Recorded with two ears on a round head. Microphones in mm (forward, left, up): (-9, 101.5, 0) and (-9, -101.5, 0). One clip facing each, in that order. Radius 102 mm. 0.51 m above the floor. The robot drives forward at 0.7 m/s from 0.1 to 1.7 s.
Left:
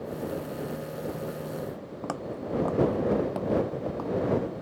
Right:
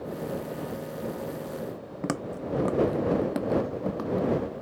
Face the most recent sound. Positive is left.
turn(degrees=-20)  # may be behind; listen again after turning